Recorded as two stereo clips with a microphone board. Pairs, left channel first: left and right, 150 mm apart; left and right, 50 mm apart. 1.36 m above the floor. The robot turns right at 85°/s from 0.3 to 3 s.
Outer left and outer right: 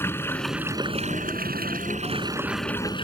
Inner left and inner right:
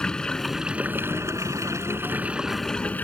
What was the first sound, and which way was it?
Running water, 165° left.